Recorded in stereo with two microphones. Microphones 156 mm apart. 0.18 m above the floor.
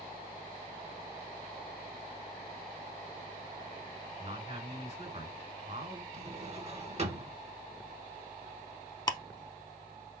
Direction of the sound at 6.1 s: 45° right (ahead or behind).